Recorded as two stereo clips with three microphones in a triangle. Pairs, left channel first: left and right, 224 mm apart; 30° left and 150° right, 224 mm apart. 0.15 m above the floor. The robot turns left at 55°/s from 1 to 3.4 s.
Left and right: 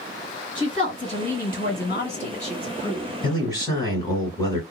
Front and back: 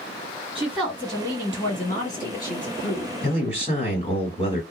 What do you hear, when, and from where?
0.6 s a woman speaking: 130° left, 1.9 m; by 3.1 s 15° left, 1.9 m
3.2 s a man speaking: 50° left, 1.4 m; by 4.6 s 40° left, 1.4 m